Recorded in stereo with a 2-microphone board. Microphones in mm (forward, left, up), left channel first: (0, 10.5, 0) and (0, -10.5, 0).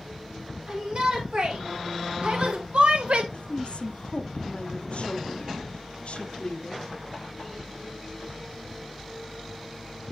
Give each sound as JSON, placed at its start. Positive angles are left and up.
{"t": 0.7, "sound": "a shout", "side_deg": -55, "distance_m": 2.5}
{"t": 3.3, "sound": "a woman speaking", "side_deg": 60, "distance_m": 0.7}